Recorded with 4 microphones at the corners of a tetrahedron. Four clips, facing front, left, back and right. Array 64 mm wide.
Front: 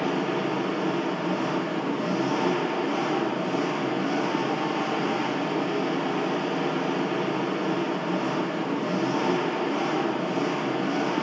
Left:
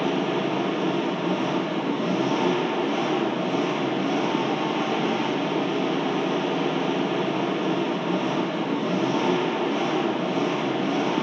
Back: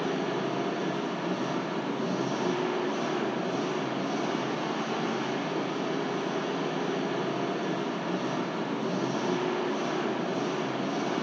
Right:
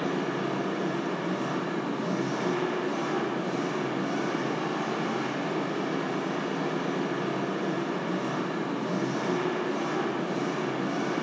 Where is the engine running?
70° left, 3 m.